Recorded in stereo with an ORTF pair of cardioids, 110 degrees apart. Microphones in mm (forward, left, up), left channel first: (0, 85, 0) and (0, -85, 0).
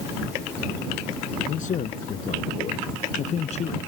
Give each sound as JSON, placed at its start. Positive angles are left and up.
{"t": 1.5, "sound": "a man speaking", "azimuth_deg": 50}